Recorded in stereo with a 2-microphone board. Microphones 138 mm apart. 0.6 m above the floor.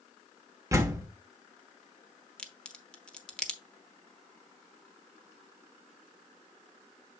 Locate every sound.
0.7 s a door slam: 20° right (ahead or behind), 1.3 m
2.4 s a crack: 10° left (ahead or behind), 1.0 m